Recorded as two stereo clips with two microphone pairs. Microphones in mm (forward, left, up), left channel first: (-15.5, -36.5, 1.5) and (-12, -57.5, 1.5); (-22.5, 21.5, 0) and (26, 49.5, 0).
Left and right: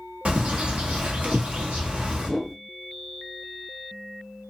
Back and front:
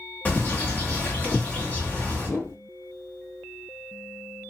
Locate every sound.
0.2 s a bird: 90° right, 0.9 m
2.2 s a whoosh: 150° right, 1.4 m